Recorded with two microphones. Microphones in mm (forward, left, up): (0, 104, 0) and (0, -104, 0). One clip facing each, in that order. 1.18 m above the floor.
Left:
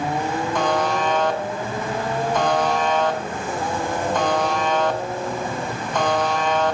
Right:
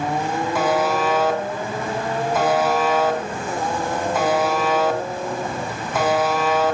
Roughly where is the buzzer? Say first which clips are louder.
Right 2 dB; centre.